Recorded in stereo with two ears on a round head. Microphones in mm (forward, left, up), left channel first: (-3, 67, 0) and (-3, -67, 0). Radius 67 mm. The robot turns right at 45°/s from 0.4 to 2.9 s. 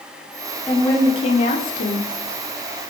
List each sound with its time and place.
0.7 s a woman speaking: 10° left, 0.7 m; by 2.1 s 75° left, 0.7 m